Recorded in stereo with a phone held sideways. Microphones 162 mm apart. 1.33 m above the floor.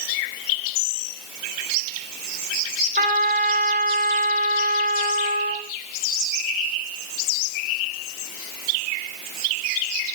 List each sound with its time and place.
3.0 s a trumpet: 65° right (ahead or behind), 6.5 m